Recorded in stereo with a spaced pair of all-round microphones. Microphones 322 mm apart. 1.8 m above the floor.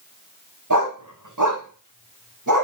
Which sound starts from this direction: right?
A dog barking, at 0.7 s.